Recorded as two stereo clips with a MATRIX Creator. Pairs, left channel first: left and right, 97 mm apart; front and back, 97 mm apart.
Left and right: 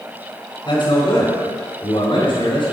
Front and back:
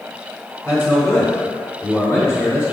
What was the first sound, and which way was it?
A man speaking, 105° left.